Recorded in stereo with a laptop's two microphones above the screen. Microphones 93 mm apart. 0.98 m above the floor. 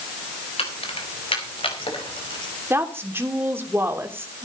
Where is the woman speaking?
25° right (ahead or behind), 3 m.